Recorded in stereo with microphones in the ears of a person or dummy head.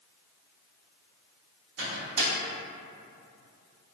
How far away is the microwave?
About 1.0 m.